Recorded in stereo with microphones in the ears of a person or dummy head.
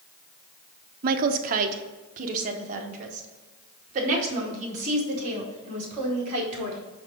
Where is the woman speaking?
55° right (ahead or behind), 0.7 m; by 6.8 s 45° right (ahead or behind), 3.5 m.